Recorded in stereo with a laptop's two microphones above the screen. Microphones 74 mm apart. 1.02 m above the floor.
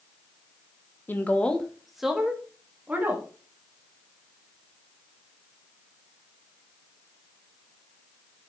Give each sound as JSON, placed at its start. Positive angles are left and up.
{"t": 1.1, "sound": "a woman speaking", "side_deg": 25, "distance_m": 1.0}